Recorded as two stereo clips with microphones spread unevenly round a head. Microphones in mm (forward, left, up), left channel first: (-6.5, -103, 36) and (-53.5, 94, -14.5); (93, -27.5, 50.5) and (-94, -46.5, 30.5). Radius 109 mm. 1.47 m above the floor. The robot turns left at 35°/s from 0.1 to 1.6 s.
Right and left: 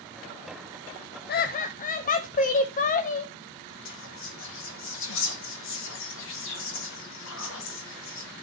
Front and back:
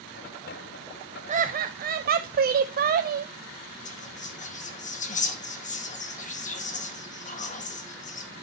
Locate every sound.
1.3 s laughter: 120° right, 0.6 m; by 3.3 s 130° right, 0.6 m
3.9 s whispering: 45° right, 2 m